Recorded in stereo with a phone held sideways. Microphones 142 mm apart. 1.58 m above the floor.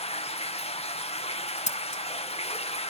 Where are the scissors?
55° left (ahead or behind), 1.0 m.